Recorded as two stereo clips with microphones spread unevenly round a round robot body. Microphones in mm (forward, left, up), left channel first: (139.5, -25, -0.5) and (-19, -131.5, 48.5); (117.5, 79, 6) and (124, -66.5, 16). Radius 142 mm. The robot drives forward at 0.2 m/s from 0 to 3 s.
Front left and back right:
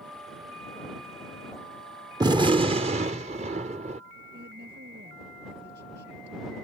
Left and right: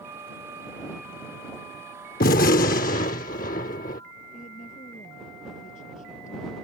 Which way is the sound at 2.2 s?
135° left.